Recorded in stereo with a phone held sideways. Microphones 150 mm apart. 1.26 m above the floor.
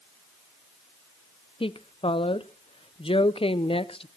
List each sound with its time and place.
1.6 s a woman speaking: 40° left (ahead or behind), 0.7 m